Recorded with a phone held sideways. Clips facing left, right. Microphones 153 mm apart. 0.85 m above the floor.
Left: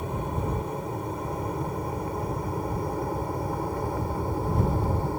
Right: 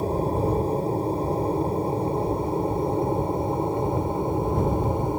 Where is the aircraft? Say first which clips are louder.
Right 7 dB; 35° right (ahead or behind); by 5.2 s 20° right (ahead or behind).